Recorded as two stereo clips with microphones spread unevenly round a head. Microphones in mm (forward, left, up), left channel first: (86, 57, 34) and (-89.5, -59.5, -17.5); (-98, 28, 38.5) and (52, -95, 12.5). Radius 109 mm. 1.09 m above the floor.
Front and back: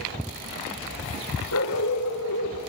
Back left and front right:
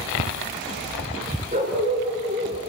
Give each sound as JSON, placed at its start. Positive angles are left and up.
{"t": 1.5, "sound": "a dog barking", "azimuth_deg": 25, "distance_m": 5.5}